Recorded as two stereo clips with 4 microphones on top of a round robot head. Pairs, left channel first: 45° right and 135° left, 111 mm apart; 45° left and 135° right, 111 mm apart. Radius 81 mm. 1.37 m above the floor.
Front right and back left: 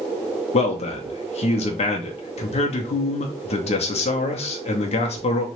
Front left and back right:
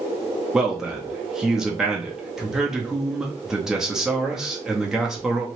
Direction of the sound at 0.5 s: 50° right.